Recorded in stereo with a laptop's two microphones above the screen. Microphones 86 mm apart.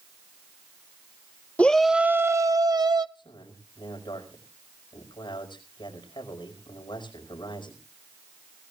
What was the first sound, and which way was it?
A shout, 15° left (ahead or behind).